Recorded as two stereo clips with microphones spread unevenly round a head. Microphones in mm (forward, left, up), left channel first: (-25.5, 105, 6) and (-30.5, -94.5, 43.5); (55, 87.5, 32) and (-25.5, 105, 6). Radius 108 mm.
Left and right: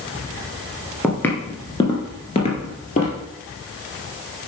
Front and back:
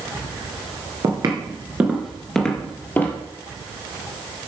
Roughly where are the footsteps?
Behind.